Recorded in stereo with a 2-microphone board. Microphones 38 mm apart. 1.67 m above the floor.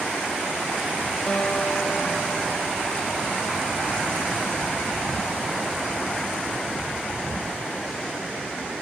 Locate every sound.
1.3 s a guitar: 35° left (ahead or behind)